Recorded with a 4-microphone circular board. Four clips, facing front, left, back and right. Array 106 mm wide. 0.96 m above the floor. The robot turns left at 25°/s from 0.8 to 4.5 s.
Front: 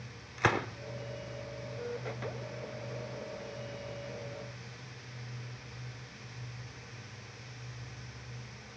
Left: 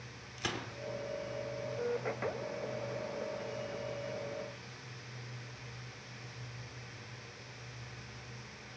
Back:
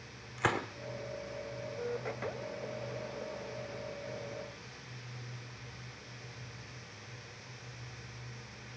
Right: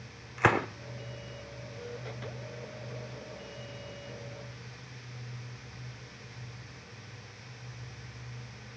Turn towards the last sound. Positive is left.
turn(degrees=-175)